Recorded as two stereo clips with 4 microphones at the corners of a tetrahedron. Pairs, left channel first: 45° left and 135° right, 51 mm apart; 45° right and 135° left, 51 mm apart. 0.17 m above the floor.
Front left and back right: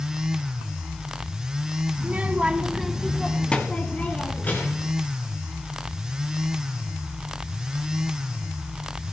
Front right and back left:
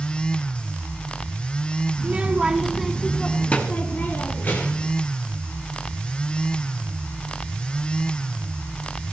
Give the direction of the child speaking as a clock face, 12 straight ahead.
6 o'clock.